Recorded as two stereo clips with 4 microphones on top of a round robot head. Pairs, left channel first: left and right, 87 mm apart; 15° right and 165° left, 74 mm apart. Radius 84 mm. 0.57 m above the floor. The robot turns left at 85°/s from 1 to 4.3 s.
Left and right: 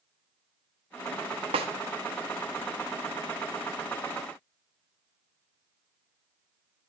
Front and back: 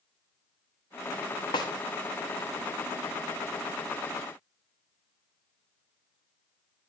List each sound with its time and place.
1.5 s a snare drum: 55° right, 0.8 m; by 1.7 s 65° right, 0.8 m